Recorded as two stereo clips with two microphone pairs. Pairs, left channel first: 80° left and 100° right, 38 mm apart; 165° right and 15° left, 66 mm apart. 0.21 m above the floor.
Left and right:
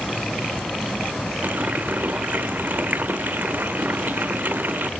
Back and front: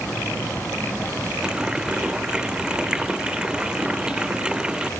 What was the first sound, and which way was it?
A running tap, 60° right.